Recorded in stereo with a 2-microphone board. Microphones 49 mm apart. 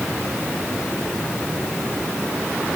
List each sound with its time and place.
Only background noise.